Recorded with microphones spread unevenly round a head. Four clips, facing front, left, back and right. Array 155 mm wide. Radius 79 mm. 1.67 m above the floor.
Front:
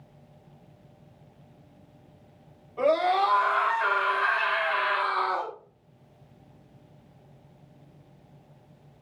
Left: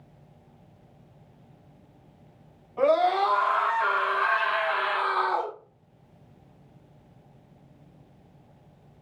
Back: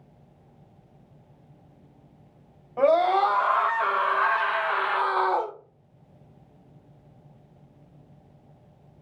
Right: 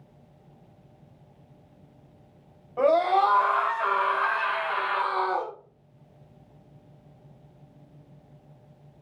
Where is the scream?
155° right, 2 m; by 5.5 s 165° left, 0.7 m.